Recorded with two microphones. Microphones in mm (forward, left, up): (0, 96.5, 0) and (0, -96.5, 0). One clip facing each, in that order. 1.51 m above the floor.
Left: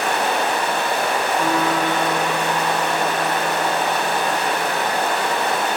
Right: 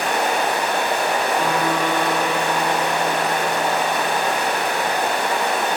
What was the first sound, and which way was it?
Running water, 15° right (ahead or behind).